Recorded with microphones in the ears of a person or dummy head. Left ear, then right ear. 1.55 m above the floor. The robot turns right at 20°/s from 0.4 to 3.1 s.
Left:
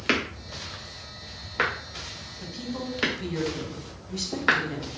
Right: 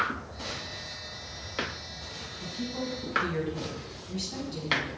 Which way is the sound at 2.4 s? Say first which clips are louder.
Even; 85° left.